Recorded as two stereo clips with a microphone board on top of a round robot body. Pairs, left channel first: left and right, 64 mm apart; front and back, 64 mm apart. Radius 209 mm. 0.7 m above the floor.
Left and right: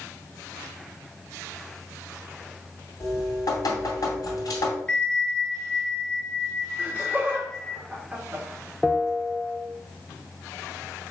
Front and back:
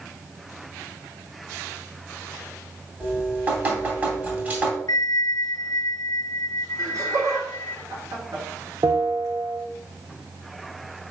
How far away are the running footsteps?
I don't hear running footsteps.